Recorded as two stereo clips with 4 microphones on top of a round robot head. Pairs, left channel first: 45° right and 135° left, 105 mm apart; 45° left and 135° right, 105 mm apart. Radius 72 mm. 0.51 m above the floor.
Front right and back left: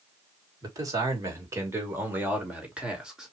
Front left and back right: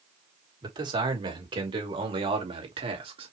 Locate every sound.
0.6 s a man speaking: 175° right, 3 m; by 3.3 s 140° right, 2.5 m